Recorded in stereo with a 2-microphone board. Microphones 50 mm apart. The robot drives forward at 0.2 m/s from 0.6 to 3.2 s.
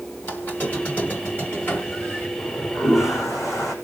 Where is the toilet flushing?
75° left (ahead or behind), 5 m.